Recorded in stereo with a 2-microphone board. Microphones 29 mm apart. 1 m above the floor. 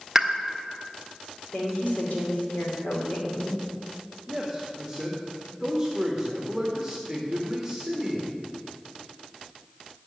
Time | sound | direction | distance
0.1 | a pop | 15° right (ahead or behind) | 1.0 m
1.5 | a woman speaking | 60° left (ahead or behind) | 3 m
4.3 | a man speaking | 10° right (ahead or behind) | 1.6 m